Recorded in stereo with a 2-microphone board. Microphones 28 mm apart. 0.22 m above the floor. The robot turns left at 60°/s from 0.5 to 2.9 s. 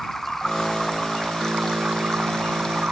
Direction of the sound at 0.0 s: 15° left.